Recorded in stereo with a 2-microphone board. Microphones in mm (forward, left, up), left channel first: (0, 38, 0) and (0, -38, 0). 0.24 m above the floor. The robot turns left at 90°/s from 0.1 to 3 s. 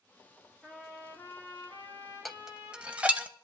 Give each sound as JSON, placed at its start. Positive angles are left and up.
{"t": 0.6, "sound": "a trumpet", "azimuth_deg": -170, "distance_m": 3.5}
{"t": 2.2, "sound": "dishes clattering", "side_deg": 0, "distance_m": 0.6}